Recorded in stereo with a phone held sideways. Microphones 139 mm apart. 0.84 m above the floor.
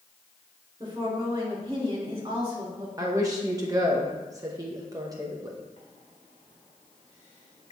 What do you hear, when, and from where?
0.8 s a woman speaking: 35° right (ahead or behind), 2.5 m
3.0 s a woman speaking: 25° right (ahead or behind), 0.7 m
5.8 s a microwave: 40° left (ahead or behind), 2 m